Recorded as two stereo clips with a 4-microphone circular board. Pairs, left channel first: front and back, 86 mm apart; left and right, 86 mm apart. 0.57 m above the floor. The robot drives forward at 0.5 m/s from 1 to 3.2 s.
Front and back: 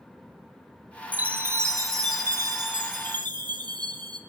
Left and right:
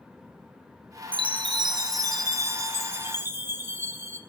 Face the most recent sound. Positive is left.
turn(degrees=-150)